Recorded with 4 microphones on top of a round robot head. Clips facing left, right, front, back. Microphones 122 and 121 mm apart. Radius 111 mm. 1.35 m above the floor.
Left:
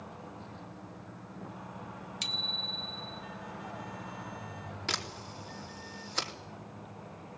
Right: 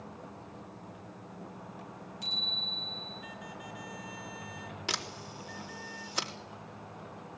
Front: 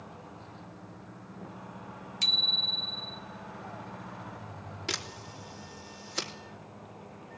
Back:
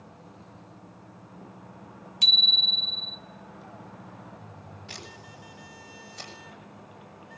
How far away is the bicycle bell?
About 2.5 m.